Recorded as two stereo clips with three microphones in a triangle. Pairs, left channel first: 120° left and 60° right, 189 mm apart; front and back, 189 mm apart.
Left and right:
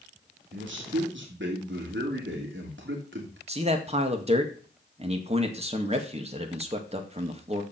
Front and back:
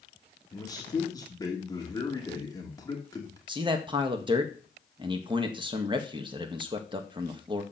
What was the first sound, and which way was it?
A man speaking, 70° right.